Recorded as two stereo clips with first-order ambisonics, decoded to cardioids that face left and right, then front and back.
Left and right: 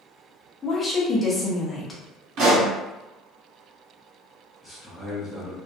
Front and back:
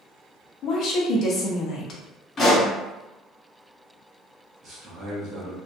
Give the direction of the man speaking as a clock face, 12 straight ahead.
6 o'clock.